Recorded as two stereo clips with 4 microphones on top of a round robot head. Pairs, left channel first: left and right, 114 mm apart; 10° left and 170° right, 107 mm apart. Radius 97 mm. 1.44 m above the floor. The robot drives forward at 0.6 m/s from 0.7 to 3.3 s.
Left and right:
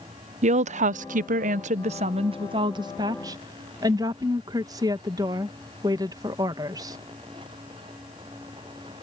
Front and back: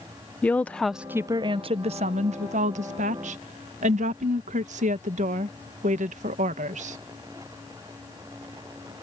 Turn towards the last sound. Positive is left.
turn(degrees=-155)